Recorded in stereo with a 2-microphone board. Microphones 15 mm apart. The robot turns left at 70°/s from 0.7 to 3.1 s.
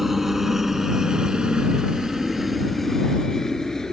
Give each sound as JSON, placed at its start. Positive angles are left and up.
{"t": 0.0, "sound": "a helicopter", "side_deg": -20}